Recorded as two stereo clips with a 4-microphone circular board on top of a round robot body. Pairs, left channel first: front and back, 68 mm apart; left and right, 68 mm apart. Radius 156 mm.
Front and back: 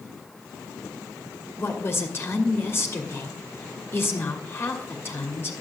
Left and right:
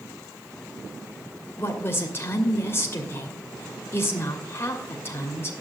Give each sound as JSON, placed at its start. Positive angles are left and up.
{"t": 1.6, "sound": "a woman speaking", "azimuth_deg": 45, "distance_m": 1.7}